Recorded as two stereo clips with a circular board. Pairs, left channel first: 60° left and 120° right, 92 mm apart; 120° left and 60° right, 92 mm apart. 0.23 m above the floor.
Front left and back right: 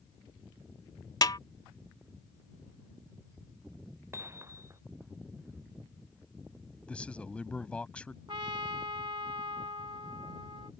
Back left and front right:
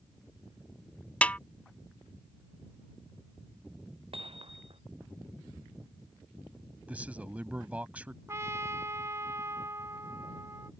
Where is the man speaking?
5° right.